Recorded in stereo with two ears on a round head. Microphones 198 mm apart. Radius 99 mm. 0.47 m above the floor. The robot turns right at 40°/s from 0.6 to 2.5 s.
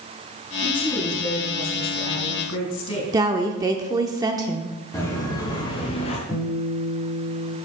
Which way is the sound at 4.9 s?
15° left (ahead or behind).